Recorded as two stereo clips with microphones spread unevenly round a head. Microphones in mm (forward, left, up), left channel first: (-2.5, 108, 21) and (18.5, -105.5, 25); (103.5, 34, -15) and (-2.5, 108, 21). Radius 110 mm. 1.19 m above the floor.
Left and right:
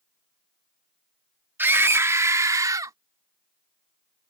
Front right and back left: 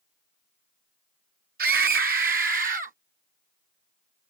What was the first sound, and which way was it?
A scream, 165° right.